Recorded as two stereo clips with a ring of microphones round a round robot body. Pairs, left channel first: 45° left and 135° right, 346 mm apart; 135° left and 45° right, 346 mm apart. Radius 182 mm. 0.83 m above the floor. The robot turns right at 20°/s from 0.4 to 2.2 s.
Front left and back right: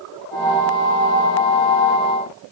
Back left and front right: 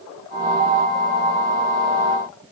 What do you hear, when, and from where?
Only background noise.